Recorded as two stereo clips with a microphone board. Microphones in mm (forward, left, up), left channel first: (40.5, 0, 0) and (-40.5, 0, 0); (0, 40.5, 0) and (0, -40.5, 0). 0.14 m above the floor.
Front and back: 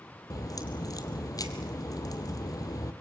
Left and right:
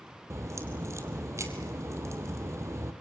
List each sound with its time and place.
0.3 s a crack: 40° right, 2 m